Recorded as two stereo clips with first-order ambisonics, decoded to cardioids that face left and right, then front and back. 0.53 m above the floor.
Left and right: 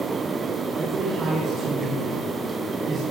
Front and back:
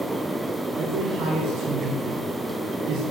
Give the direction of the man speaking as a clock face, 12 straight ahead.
5 o'clock.